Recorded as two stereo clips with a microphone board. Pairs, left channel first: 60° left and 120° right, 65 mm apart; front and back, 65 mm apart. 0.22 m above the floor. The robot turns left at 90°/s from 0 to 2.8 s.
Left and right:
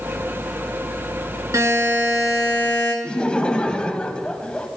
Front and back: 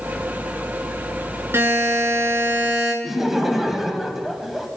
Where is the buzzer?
140° right, 2.5 m; by 2.9 s 110° left, 2.5 m.